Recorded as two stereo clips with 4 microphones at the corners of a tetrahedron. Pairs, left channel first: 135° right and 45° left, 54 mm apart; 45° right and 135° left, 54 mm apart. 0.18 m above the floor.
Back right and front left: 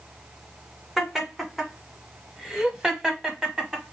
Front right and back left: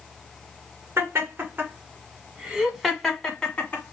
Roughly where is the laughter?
Behind left.